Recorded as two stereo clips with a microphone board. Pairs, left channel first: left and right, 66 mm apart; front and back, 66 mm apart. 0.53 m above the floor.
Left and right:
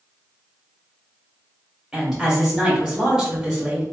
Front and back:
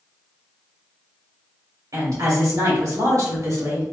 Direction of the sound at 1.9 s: 170° right.